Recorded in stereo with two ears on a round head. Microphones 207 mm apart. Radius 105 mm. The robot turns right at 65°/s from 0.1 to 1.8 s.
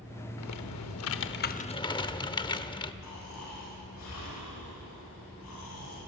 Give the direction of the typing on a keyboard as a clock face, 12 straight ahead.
10 o'clock.